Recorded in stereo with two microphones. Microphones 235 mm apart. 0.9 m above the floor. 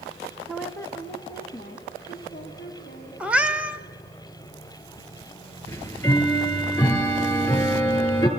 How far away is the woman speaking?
About 0.6 m.